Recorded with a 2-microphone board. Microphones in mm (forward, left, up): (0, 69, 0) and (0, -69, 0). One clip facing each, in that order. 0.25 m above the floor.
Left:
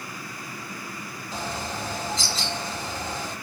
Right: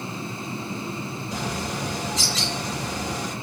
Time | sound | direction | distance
1.3 | a bird | 80° right | 6 m